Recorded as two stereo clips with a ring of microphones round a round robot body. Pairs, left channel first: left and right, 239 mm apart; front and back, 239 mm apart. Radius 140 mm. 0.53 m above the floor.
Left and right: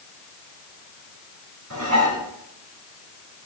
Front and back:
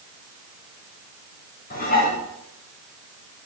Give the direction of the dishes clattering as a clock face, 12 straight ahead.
2 o'clock.